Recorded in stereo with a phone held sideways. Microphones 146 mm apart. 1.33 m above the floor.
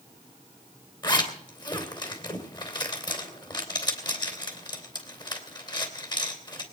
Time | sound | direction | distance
1.0 | a zipper | 35° left (ahead or behind) | 3 m